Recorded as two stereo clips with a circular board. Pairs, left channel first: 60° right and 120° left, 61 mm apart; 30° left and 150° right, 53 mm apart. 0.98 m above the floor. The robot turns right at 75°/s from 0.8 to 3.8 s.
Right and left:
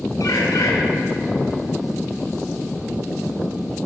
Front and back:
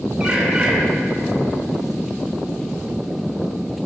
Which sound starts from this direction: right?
A bird, at 0.2 s.